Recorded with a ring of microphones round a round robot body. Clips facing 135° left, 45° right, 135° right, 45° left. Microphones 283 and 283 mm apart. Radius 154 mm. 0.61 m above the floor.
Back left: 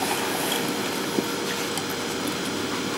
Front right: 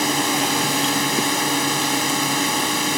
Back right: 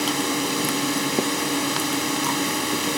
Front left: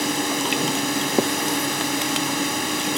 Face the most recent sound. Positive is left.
turn(degrees=-50)